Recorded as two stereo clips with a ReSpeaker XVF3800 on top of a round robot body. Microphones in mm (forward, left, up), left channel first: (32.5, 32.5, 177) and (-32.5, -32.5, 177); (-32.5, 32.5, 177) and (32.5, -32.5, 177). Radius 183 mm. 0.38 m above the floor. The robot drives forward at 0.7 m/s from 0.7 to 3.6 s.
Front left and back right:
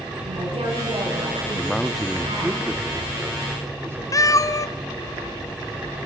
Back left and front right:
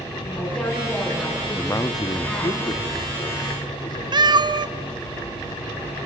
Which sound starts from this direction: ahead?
A cat meowing, at 4.1 s.